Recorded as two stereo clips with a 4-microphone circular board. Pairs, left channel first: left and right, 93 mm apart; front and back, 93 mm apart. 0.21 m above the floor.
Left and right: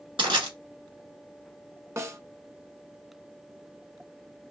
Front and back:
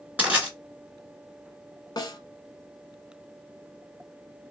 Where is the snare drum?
35° right, 0.7 m.